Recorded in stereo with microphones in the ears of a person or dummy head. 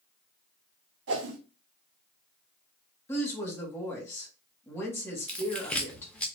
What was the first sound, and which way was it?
A whoosh, 70° right (ahead or behind).